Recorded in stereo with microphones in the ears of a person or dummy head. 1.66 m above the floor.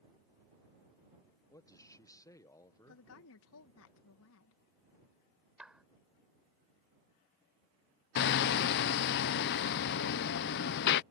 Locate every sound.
1.5 s a man speaking: 20° left (ahead or behind)
2.9 s a woman speaking: 75° left (ahead or behind)
5.6 s a clap: 5° right (ahead or behind)
8.2 s hammering: 55° left (ahead or behind)